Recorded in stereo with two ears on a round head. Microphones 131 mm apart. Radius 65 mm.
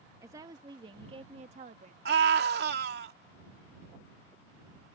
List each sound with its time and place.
0.2 s a woman speaking: 20° right (ahead or behind); by 1.9 s 55° right (ahead or behind)
2.0 s a scream: 75° right (ahead or behind)